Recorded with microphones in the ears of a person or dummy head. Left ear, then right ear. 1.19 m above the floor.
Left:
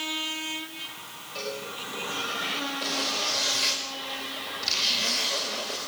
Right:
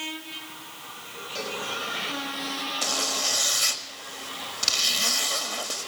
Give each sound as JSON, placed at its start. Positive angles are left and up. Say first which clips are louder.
{"t": 1.4, "sound": "a cowbell", "louder": "right 1 dB", "side_deg": -30, "distance_m": 5.5}
{"t": 2.8, "sound": "a zipper", "louder": "right 3 dB", "side_deg": -45, "distance_m": 1.9}